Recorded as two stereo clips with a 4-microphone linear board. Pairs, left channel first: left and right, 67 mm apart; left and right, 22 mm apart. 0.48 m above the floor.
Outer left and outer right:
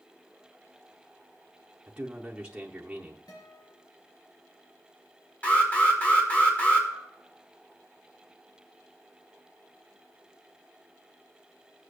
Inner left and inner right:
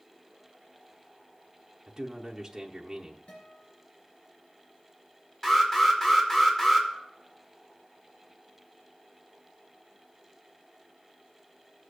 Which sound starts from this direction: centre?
A man speaking, at 1.9 s.